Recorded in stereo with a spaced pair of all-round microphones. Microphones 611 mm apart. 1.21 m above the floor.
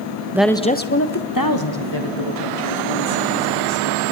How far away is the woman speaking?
About 1.1 m.